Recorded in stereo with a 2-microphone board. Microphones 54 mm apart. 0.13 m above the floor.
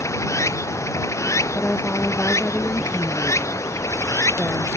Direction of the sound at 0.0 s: 65° left (ahead or behind).